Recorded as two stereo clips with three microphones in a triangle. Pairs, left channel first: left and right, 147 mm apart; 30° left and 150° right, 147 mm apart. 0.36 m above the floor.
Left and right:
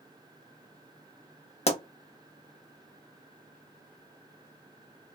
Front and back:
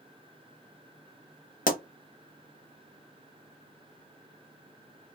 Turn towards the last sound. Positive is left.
turn(degrees=50)